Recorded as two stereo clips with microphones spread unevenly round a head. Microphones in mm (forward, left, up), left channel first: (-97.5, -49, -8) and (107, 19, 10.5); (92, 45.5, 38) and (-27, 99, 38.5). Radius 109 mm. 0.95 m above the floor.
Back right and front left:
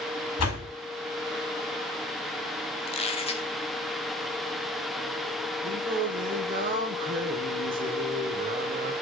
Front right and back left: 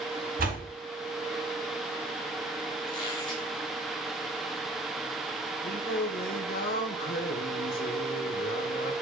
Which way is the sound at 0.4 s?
175° left.